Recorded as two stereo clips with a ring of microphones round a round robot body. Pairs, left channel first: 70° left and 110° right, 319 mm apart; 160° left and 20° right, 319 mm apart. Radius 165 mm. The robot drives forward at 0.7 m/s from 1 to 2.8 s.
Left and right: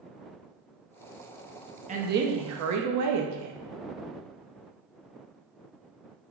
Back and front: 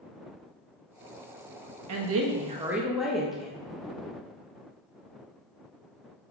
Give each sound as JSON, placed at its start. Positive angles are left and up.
{"t": 1.9, "sound": "a woman speaking", "azimuth_deg": -45, "distance_m": 0.8}